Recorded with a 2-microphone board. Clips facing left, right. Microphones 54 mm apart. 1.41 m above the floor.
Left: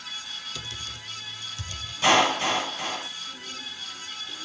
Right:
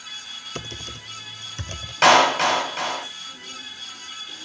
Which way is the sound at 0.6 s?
40° right (ahead or behind).